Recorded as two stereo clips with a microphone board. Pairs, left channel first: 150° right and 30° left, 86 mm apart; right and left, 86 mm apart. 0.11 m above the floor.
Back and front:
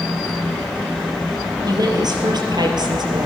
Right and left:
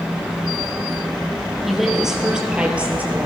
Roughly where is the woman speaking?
Ahead.